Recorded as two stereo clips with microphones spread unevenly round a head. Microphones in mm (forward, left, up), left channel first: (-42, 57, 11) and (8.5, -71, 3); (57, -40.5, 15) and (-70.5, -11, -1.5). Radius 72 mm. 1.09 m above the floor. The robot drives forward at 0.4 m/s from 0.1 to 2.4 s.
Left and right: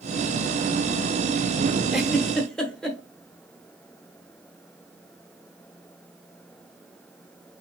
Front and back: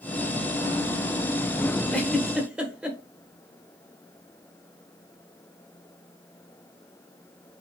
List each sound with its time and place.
1.9 s a giggle: 25° left, 0.7 m; by 3.0 s 75° left, 0.7 m